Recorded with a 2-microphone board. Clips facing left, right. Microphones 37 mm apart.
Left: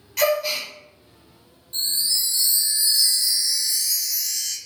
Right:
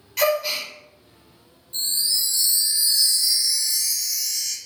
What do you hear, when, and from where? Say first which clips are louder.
0.2 s a gasp: even; 5° right (ahead or behind), 0.8 m
1.7 s a chime: even; 50° left (ahead or behind), 0.9 m